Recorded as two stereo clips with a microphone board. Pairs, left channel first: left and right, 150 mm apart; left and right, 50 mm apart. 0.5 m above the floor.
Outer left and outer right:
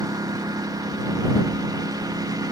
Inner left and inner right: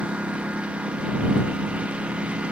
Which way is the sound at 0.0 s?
25° right (ahead or behind).